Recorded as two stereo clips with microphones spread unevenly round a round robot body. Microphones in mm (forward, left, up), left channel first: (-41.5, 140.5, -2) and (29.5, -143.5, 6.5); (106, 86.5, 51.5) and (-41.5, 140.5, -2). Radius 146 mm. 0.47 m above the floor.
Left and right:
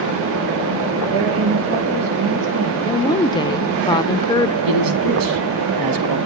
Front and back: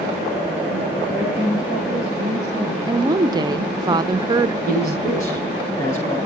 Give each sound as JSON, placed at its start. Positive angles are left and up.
{"t": 1.1, "sound": "a woman speaking", "azimuth_deg": -120, "distance_m": 9.5}
{"t": 2.9, "sound": "a woman speaking", "azimuth_deg": 170, "distance_m": 0.9}
{"t": 4.7, "sound": "a man speaking", "azimuth_deg": -90, "distance_m": 4.0}